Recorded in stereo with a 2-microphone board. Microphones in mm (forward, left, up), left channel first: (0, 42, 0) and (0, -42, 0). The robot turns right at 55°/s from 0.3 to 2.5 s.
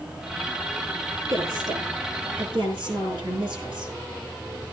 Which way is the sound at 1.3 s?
145° right.